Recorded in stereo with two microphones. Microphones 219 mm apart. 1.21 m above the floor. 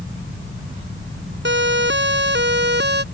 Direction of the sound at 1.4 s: 55° right (ahead or behind).